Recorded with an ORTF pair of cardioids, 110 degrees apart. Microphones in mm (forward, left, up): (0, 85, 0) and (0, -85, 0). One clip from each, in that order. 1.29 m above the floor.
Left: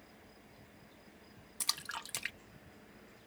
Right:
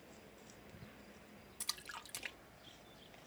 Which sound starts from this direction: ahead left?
A splash, at 1.6 s.